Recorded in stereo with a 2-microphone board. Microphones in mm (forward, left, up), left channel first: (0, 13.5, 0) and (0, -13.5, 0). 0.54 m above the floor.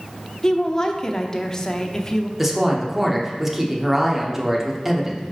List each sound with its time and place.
0.4 s a woman speaking: 25° left (ahead or behind), 0.7 m
2.4 s a woman speaking: 10° right (ahead or behind), 1.0 m